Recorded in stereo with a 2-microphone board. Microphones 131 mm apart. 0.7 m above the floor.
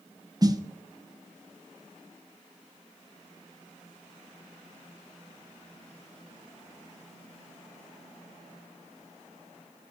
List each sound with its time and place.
0.4 s a snare drum: 30° right (ahead or behind), 0.7 m